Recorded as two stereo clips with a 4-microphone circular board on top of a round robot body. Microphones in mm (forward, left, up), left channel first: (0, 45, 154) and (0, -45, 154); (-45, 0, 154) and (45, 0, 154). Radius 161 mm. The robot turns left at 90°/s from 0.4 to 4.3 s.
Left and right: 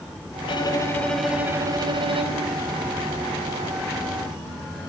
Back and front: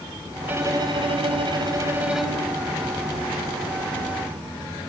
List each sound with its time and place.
0.5 s a violin: 70° left, 3.5 m; by 2.5 s 110° right, 3.5 m